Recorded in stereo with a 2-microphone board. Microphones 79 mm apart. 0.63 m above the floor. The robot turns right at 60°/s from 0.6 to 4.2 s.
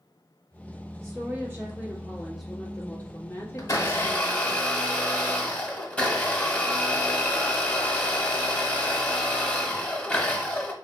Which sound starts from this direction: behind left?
A blender, at 3.6 s.